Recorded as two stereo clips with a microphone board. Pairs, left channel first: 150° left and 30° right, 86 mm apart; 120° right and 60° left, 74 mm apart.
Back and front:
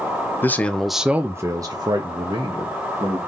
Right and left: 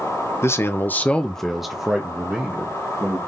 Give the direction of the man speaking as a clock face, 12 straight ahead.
5 o'clock.